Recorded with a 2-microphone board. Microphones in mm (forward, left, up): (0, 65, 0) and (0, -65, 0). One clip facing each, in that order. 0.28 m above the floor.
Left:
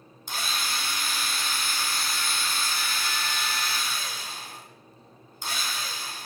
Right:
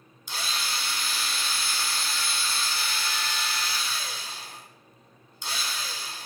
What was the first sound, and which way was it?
A drill, 50° left (ahead or behind).